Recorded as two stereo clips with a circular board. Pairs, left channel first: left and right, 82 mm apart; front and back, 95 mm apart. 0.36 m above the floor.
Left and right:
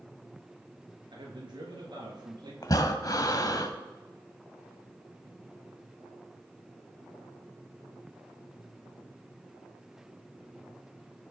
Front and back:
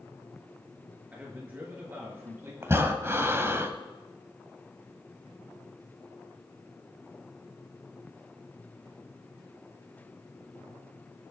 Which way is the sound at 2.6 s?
120° left.